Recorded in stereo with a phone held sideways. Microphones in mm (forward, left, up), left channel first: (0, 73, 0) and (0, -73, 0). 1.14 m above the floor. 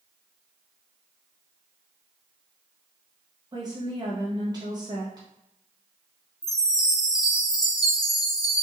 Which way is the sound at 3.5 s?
30° right (ahead or behind).